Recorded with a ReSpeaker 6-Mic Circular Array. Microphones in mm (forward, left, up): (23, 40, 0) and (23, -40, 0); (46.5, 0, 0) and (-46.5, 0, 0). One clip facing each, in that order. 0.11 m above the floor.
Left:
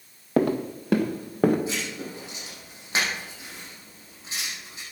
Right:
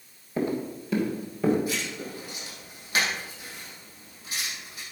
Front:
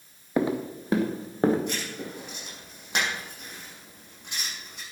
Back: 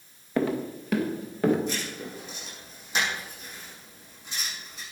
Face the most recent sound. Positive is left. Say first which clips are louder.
# even, even
turn(degrees=25)